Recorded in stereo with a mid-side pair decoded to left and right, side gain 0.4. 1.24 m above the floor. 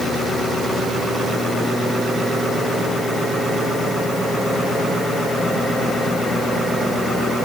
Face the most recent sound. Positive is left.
No sound to turn to.